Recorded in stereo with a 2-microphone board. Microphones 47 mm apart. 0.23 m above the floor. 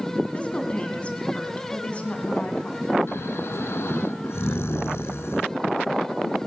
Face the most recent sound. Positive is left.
turn(degrees=70)  # may be behind; listen again after turning